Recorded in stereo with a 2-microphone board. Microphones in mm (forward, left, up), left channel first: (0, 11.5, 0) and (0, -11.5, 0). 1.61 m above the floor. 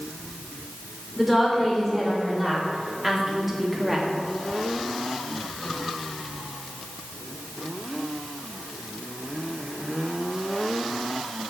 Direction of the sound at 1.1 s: Centre (ahead or behind).